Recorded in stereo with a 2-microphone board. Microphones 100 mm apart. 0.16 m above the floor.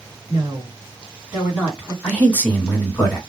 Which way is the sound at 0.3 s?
30° right (ahead or behind).